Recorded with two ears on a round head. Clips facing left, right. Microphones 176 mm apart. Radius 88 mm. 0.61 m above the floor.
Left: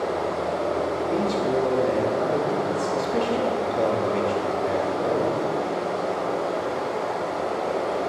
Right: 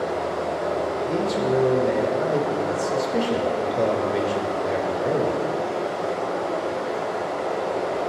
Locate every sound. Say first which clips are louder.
0.0 s running water: even; 45° left (ahead or behind), 4 m
1.1 s a man speaking: right 1 dB; 5° right (ahead or behind), 1.2 m